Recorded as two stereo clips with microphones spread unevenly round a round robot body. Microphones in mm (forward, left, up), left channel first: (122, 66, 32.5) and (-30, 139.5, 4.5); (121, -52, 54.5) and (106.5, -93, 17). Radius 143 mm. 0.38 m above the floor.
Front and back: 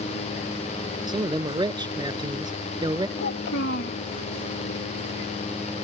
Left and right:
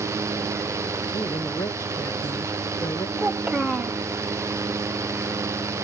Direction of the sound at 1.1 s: 90° left.